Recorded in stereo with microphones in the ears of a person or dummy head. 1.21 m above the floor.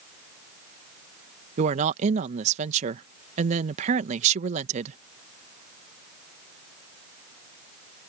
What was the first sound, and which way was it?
A woman speaking, 40° right (ahead or behind).